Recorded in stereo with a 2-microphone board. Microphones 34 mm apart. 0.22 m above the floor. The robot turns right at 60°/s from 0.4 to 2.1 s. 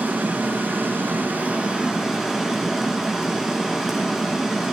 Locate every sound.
0.0 s running water: 120° right, 2 m; by 4.7 s 15° right, 2 m